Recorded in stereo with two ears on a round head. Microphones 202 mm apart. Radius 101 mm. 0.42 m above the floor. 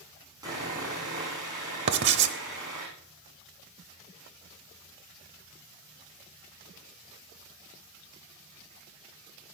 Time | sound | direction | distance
0.4 | sawing | 20° right (ahead or behind) | 6.5 m
1.9 | writing | 55° right (ahead or behind) | 0.9 m